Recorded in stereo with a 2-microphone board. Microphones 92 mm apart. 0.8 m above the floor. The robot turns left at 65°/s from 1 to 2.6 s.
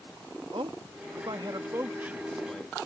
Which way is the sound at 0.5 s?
90° right.